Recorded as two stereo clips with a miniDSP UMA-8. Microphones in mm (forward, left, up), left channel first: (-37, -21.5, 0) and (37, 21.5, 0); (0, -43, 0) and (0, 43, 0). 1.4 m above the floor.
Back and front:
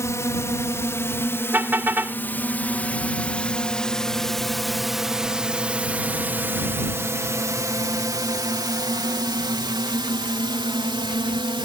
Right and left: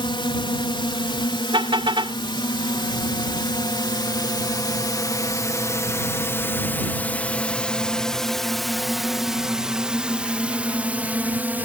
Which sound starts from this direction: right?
A drone, at 0.0 s.